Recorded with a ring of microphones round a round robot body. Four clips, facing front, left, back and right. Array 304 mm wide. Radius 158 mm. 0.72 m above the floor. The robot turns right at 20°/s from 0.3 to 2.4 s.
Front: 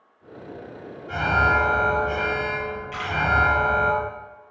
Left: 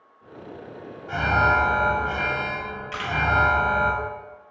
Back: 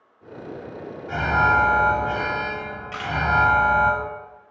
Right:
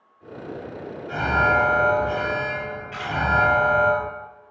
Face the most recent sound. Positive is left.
turn(degrees=115)